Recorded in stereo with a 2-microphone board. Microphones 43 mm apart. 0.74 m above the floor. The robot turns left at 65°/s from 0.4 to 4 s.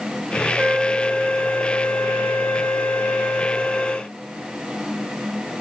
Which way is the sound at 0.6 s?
165° right.